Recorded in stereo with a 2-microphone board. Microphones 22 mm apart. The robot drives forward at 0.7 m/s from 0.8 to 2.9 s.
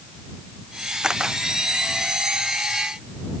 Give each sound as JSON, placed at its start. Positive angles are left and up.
{"t": 1.0, "sound": "a camera shutter", "side_deg": -40}